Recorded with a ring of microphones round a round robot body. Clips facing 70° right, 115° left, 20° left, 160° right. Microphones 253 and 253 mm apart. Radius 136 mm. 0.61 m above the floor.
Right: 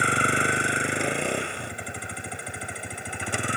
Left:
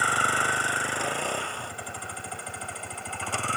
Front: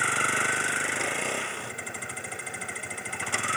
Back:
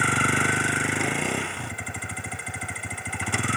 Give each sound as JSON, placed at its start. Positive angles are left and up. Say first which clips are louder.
{"t": 0.0, "sound": "a vehicle", "louder": "right 6 dB, back 7 dB", "azimuth_deg": -135}